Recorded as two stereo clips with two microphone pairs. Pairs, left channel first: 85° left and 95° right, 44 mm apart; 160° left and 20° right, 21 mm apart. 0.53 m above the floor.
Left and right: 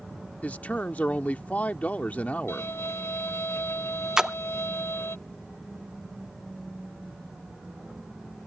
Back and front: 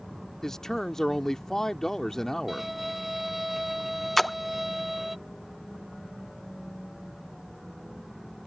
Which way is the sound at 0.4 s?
120° left.